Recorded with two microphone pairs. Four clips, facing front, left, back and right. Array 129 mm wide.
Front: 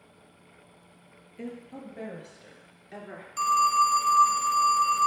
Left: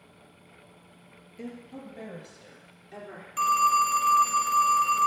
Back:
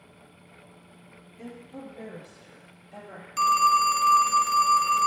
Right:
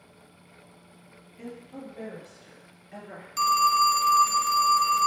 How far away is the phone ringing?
About 0.6 m.